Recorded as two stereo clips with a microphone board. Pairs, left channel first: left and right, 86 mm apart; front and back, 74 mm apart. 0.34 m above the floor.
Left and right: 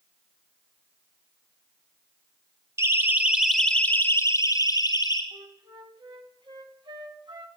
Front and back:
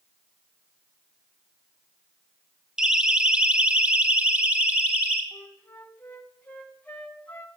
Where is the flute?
70° right, 2.5 m.